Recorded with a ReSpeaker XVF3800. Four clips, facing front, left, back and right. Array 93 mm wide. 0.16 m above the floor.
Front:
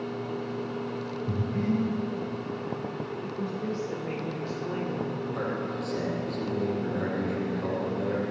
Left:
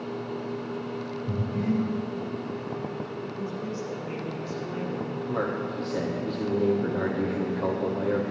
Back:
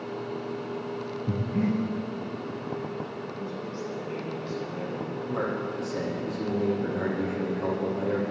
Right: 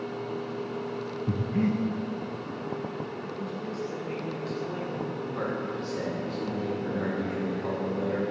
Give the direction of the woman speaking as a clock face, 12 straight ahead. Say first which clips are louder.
Left 2 dB, front 3 dB; 11 o'clock.